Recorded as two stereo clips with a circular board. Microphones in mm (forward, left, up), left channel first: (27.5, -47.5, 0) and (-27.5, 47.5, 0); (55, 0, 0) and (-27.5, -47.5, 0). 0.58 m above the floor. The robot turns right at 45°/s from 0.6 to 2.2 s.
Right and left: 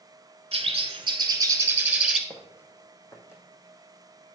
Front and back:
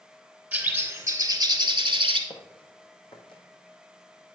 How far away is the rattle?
I don't hear a rattle.